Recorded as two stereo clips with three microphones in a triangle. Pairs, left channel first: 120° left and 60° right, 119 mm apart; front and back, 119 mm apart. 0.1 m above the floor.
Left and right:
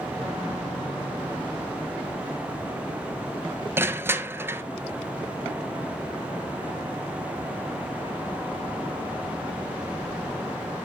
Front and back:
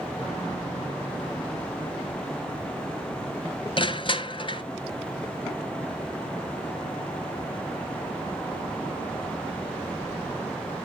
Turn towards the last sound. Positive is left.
turn(degrees=5)